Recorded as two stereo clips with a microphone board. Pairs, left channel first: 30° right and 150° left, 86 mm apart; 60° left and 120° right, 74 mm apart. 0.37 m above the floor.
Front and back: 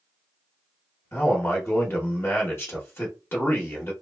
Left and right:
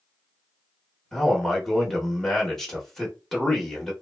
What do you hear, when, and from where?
1.1 s a man speaking: 20° right, 0.8 m